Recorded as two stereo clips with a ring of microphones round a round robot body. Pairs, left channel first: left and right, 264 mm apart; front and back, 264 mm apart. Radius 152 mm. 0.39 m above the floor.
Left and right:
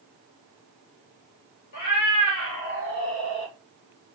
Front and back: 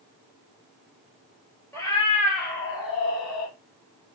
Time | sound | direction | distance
1.7 | a cat meowing | 80° left | 2 m